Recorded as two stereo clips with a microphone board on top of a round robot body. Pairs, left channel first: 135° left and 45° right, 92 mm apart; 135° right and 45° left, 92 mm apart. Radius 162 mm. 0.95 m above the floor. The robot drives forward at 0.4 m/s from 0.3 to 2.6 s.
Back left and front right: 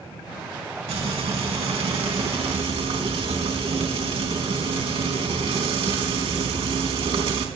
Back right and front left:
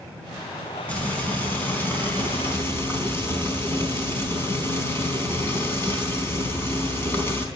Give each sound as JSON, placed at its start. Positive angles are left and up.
{"t": 0.9, "sound": "frying", "azimuth_deg": -60, "distance_m": 4.0}